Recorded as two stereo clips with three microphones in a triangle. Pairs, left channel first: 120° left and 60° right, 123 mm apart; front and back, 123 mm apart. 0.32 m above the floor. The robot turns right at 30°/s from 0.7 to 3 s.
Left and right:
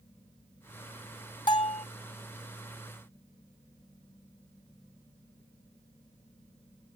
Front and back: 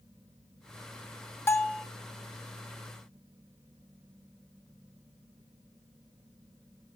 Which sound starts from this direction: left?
A bell, at 1.5 s.